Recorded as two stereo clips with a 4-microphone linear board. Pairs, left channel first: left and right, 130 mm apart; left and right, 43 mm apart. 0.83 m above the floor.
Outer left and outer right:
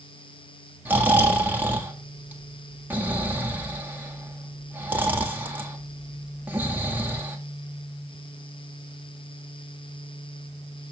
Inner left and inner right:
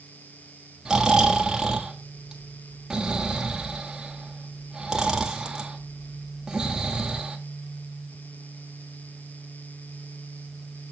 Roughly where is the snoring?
Centre.